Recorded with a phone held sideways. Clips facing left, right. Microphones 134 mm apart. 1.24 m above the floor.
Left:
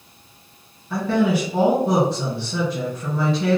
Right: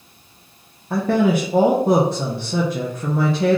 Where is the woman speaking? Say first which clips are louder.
Right 2 dB; 50° right (ahead or behind), 0.7 m.